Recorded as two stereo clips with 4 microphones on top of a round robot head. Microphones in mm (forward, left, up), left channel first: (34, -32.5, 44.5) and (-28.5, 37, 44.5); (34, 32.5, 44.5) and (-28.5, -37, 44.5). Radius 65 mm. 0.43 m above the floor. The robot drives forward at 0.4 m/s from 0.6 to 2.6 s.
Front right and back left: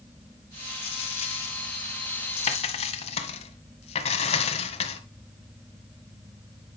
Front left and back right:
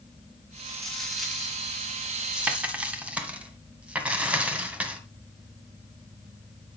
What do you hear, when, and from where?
0.8 s a dropped coin: 40° right, 2 m; by 5.0 s 55° right, 1.6 m